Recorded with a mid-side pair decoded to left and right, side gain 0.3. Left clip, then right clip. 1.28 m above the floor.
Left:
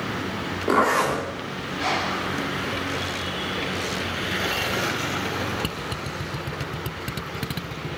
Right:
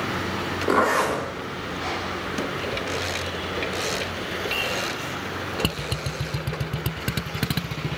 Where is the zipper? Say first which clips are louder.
Left 1 dB; 10° left, 2.5 m.